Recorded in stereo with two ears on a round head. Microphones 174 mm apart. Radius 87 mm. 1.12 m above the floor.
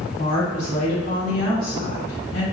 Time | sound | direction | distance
0.2 | a woman speaking | 80° left | 1.6 m